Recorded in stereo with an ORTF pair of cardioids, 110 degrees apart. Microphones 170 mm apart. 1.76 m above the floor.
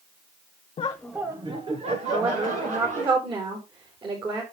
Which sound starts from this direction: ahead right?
A woman speaking, at 2.1 s.